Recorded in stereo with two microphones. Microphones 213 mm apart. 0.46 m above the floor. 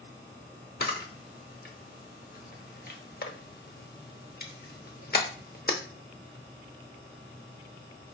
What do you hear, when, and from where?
0.8 s a camera shutter: 45° left (ahead or behind), 0.7 m